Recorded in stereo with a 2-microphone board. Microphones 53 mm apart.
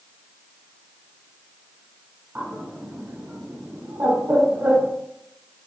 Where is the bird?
40° right (ahead or behind), 1.0 m.